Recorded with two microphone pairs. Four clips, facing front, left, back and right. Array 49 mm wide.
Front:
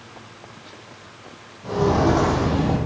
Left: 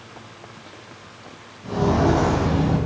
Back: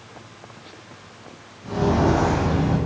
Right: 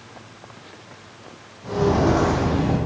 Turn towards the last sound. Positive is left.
turn(degrees=-15)